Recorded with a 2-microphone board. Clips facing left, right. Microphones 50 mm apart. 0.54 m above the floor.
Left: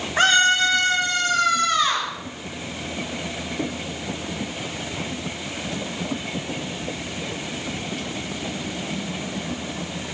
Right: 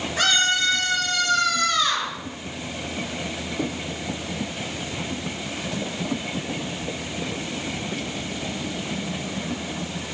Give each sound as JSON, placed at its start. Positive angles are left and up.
{"t": 0.2, "sound": "a scream", "side_deg": 40, "distance_m": 3.5}